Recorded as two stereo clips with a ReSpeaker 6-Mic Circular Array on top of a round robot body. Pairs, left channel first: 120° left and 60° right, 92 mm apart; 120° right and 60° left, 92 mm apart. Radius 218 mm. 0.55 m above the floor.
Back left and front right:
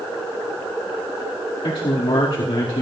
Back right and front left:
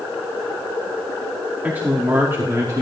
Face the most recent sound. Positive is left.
turn(degrees=110)